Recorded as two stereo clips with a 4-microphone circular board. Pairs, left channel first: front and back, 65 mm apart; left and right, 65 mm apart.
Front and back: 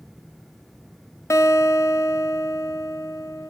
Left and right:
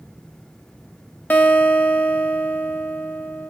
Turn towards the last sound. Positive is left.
turn(degrees=35)